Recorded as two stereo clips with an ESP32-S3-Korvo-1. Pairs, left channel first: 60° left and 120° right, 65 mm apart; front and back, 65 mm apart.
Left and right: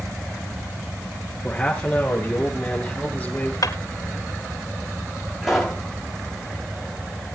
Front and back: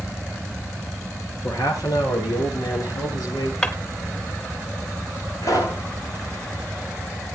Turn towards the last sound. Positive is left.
turn(degrees=-35)